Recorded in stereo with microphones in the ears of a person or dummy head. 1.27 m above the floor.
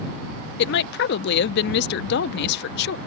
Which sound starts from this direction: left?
A woman speaking, at 0.6 s.